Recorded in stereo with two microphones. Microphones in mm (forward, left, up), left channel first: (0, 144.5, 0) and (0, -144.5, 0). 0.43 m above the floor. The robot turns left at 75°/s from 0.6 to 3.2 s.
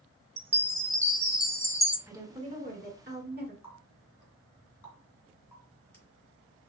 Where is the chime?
155° right, 0.9 m; by 2.0 s 105° left, 0.9 m.